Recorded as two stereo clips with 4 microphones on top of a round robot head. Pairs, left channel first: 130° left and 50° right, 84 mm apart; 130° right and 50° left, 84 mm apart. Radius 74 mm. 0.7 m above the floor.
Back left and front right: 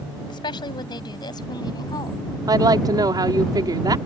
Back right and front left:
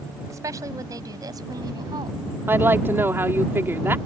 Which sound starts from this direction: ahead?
A woman speaking, at 2.5 s.